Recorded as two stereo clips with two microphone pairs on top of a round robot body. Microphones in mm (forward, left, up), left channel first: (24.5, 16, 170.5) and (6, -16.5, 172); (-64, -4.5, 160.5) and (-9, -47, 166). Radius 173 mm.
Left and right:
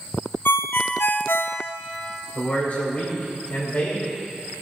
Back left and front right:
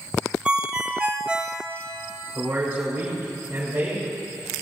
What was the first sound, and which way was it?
A ringtone, 40° left.